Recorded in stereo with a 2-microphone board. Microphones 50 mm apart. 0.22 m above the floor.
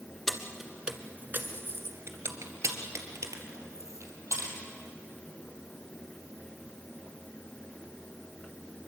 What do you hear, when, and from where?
0.3 s keys jangling: 5° left (ahead or behind), 1.6 m; by 4.5 s 80° right, 4.5 m